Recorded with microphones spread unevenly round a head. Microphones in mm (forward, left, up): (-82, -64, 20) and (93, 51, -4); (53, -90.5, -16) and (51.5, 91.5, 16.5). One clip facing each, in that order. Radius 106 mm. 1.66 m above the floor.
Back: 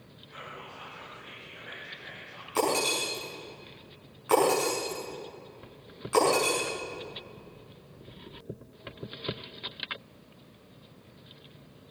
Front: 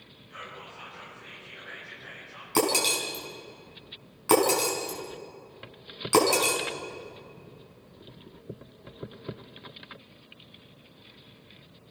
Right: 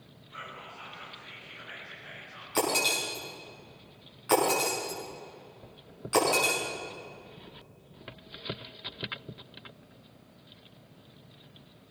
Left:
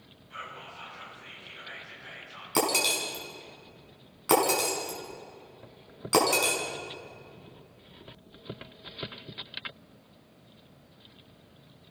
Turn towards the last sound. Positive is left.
turn(degrees=70)